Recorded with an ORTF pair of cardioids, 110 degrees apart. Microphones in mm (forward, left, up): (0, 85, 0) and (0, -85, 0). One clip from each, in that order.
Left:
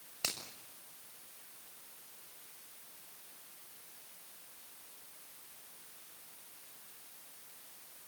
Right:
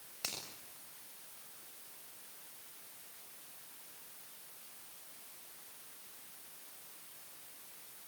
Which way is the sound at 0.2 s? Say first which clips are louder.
Left 3 dB; 30° left.